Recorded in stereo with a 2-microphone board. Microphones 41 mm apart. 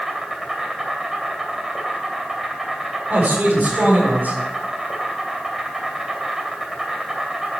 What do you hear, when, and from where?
0.0 s an insect: 5° right (ahead or behind), 2.5 m
3.1 s a man speaking: 45° right (ahead or behind), 5.5 m